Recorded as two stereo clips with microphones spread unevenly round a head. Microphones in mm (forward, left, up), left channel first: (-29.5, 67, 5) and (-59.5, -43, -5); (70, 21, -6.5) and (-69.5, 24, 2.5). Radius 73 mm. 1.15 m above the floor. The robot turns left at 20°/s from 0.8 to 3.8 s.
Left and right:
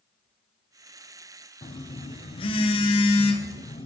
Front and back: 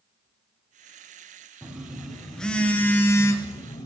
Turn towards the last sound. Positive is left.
turn(degrees=55)